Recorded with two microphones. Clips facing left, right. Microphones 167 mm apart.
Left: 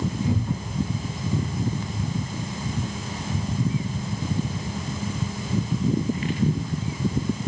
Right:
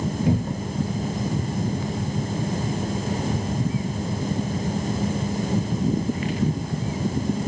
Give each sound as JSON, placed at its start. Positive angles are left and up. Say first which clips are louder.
{"t": 0.3, "sound": "a cupboard door", "louder": "right 3 dB", "side_deg": -70, "distance_m": 0.8}